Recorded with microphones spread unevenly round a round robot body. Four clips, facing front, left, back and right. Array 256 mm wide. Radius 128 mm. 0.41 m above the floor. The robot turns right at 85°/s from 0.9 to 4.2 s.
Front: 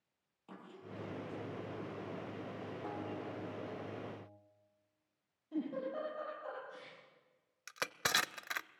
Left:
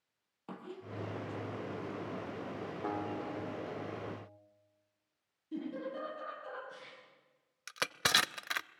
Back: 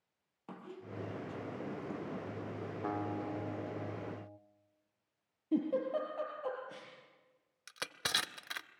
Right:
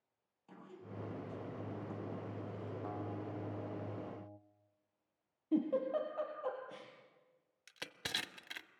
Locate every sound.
0.5 s a squeak: 110° left, 4.5 m; by 2.8 s 85° right, 4.5 m
2.8 s a guitar: 115° left, 1.2 m; by 4.4 s 130° right, 1.2 m
5.5 s a giggle: 145° right, 5.5 m
7.7 s crushing: 75° left, 0.6 m